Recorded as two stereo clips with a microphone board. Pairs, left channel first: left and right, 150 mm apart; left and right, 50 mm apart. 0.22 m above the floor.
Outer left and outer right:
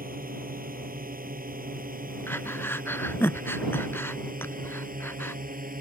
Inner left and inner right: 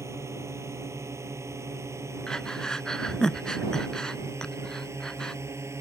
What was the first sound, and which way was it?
A drone, 70° right (ahead or behind).